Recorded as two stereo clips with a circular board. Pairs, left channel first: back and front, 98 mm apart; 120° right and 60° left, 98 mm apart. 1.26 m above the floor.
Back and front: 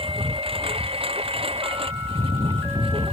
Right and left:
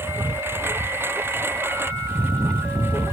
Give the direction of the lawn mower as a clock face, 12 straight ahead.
12 o'clock.